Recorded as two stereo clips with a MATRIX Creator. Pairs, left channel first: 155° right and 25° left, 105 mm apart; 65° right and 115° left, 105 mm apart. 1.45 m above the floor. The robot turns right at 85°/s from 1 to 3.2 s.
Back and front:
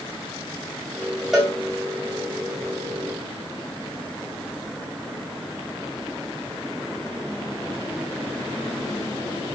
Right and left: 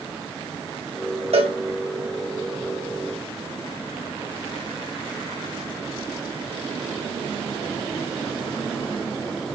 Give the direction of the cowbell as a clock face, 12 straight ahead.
8 o'clock.